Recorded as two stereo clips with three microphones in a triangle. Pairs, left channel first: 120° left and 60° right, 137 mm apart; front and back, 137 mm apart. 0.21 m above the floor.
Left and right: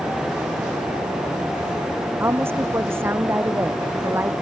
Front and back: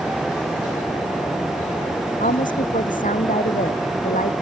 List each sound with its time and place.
2.2 s a woman speaking: 15° left